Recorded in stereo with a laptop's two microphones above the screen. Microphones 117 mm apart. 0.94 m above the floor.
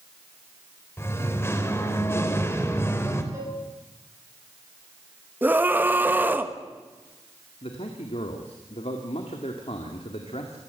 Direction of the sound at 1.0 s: 20° left (ahead or behind).